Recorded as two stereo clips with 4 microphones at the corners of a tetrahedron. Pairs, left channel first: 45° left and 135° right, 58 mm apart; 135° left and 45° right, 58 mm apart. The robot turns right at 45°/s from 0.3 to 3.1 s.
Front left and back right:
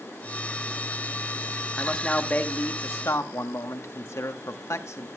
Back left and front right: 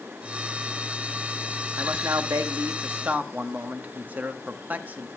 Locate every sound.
1.8 s a man speaking: 45° right, 1.0 m; by 5.1 s 15° left, 1.0 m